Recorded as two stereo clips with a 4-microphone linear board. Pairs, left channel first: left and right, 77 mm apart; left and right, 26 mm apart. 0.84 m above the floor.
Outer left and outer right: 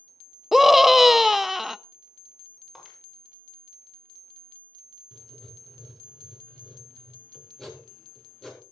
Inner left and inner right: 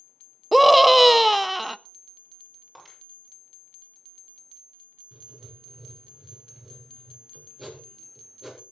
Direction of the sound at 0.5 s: 5° right (ahead or behind).